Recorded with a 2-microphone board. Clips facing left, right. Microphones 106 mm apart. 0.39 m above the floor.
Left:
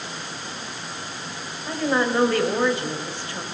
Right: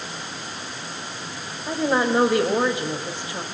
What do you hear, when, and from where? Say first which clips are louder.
1.7 s a woman speaking: right 1 dB; 15° right (ahead or behind), 2 m